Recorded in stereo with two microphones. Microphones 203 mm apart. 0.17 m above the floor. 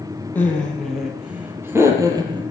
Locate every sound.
0.3 s laughter: 10° left (ahead or behind), 4 m; by 2.4 s 20° right (ahead or behind), 4 m